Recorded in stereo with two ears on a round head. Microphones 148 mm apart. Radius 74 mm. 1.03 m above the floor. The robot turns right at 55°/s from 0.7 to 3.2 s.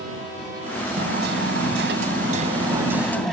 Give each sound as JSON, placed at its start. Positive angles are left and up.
{"t": 1.0, "sound": "hammering", "azimuth_deg": -120}